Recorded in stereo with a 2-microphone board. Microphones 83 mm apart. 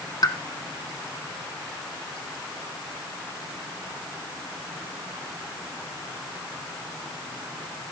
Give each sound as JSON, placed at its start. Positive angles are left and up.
{"t": 0.2, "sound": "a pop", "side_deg": 50, "distance_m": 1.0}